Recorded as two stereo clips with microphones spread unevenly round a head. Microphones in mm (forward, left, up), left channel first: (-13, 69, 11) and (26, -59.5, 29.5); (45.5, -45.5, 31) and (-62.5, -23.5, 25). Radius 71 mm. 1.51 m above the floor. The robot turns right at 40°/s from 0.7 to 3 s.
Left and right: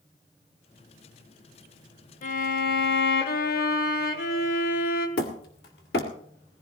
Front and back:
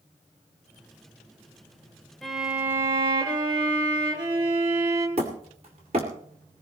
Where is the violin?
75° left, 1.2 m; by 5.1 s 110° left, 1.2 m.